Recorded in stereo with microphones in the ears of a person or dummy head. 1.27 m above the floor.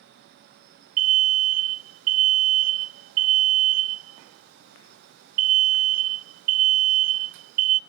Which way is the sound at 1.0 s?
45° right (ahead or behind).